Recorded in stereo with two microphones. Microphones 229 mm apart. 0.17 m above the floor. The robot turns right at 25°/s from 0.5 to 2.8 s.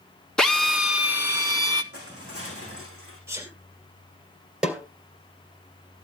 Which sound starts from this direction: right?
Crushing, at 1.9 s.